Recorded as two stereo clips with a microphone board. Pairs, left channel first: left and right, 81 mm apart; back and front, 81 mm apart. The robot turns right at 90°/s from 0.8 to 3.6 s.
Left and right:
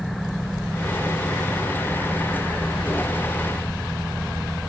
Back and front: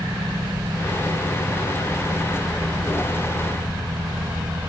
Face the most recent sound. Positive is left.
No sound to turn to.